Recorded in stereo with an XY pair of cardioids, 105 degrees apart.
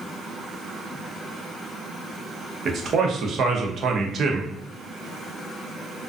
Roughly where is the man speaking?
Ahead right.